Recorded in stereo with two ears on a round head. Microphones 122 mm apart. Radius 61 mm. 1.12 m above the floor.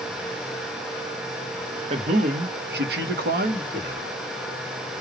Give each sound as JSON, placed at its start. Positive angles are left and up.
{"t": 1.9, "sound": "a man speaking", "side_deg": -45, "distance_m": 1.0}